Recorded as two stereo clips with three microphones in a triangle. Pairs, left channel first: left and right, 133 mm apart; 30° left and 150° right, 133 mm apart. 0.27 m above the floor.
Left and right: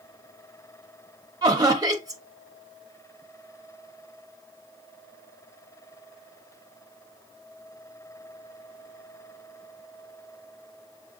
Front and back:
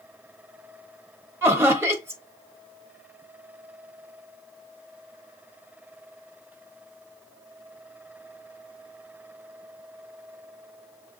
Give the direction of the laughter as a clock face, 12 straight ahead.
3 o'clock.